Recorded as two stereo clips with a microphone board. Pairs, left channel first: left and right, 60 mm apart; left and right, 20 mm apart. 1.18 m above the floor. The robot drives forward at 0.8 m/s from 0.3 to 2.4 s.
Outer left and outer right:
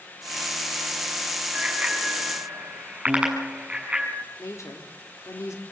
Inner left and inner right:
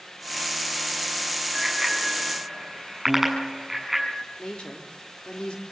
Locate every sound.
1.5 s a bicycle bell: 20° right (ahead or behind), 7.5 m; by 4.1 s 15° right (ahead or behind), 8 m
3.1 s a piano: 30° right (ahead or behind), 1.8 m
4.4 s a woman speaking: 55° left (ahead or behind), 3.5 m